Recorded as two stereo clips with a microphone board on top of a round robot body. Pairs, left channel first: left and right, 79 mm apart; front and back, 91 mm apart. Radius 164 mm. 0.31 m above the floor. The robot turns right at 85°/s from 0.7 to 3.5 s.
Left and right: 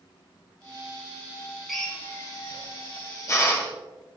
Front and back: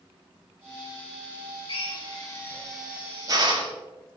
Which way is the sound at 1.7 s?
Straight ahead.